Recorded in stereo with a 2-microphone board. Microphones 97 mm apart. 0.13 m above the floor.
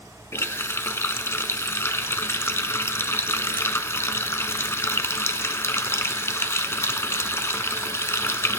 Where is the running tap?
25° left (ahead or behind), 0.8 m.